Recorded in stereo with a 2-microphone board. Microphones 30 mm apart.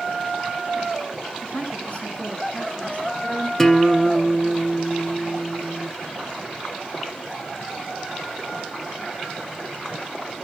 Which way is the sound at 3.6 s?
10° left (ahead or behind).